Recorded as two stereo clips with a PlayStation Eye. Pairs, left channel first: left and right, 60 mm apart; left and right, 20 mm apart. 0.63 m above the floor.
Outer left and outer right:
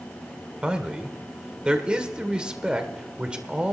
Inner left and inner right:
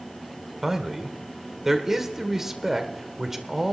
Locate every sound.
0.6 s a man speaking: 15° right (ahead or behind), 1.7 m